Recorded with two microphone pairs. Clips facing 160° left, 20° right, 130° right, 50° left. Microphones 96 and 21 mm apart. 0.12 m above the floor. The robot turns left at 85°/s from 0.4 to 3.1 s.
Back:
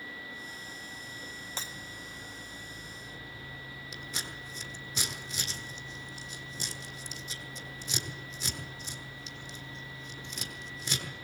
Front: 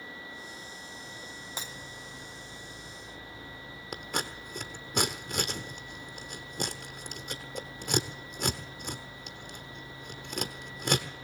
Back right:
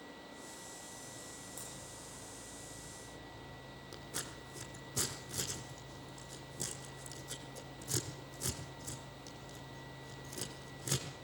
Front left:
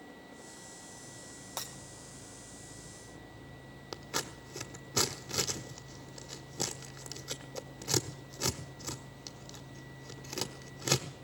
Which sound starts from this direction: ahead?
Scissors, at 3.9 s.